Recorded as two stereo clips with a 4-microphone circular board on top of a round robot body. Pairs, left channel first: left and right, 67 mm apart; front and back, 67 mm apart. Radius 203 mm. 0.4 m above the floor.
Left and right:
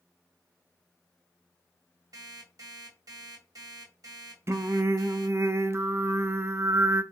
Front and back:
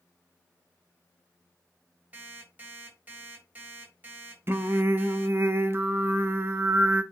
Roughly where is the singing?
Behind right.